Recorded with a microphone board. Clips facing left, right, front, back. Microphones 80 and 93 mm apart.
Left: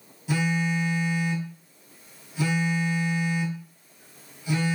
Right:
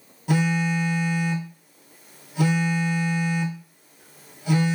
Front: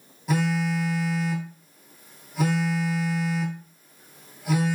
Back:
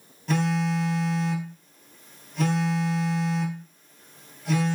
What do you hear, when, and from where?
0.3 s a phone buzzing: 80° right, 0.6 m